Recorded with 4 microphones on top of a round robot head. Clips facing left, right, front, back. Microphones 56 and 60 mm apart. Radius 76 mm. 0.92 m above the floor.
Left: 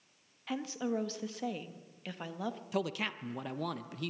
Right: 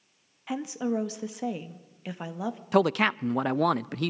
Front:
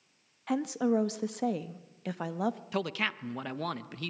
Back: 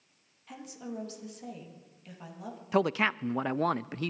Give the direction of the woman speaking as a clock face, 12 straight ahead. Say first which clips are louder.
Right 5 dB, front 14 dB; 12 o'clock.